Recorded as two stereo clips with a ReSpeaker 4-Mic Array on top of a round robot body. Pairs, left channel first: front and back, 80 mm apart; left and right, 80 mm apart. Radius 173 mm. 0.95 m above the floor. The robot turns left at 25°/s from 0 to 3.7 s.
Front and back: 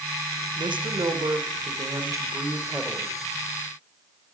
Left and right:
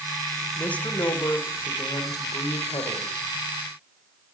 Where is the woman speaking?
165° left, 1.0 m; by 3.2 s 100° left, 1.0 m.